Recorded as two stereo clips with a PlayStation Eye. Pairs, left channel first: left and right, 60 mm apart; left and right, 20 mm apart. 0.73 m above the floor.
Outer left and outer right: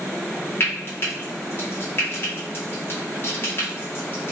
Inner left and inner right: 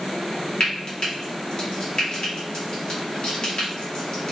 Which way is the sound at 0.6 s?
40° left (ahead or behind).